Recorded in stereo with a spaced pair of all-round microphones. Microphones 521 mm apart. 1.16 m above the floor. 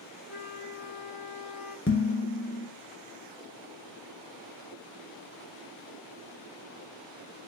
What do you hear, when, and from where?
0.3 s a flute: 5° right (ahead or behind), 0.7 m
1.9 s dishes clattering: 25° left (ahead or behind), 0.6 m